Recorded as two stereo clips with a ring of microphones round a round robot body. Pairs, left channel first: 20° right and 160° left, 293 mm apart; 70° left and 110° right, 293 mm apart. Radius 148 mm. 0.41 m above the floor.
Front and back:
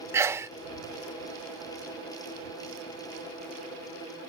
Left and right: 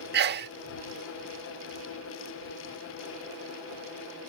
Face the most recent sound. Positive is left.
turn(degrees=-130)